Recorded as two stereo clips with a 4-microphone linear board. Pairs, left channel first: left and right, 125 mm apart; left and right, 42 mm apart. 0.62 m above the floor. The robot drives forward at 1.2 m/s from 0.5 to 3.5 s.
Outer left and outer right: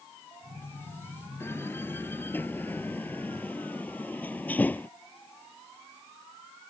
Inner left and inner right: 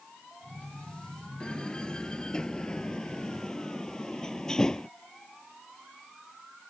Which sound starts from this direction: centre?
A door slam, at 1.4 s.